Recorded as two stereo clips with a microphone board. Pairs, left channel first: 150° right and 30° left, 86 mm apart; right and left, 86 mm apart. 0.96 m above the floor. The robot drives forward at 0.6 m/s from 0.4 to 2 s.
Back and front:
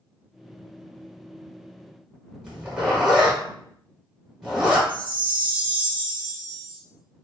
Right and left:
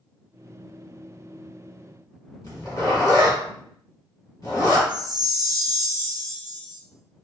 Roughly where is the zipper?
Ahead right.